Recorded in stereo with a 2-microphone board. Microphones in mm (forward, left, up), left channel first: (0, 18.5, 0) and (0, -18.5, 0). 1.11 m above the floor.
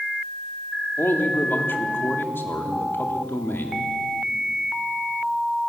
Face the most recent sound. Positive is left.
turn(degrees=80)